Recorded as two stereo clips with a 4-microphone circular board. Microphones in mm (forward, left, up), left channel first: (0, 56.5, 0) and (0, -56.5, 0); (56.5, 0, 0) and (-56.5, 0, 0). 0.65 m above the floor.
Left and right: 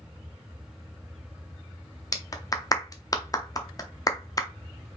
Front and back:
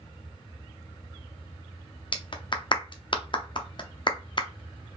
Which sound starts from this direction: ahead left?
A clap, at 2.1 s.